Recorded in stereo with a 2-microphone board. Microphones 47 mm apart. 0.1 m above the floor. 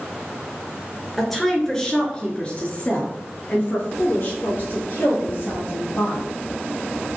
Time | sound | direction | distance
1.2 | a woman speaking | 5° left (ahead or behind) | 1.6 m